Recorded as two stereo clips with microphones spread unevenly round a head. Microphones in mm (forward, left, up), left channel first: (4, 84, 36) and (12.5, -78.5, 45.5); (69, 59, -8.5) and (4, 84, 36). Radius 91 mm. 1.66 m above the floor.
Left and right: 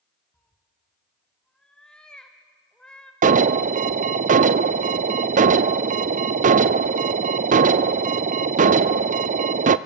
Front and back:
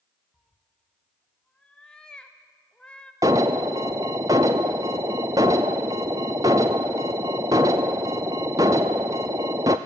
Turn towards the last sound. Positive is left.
turn(degrees=-125)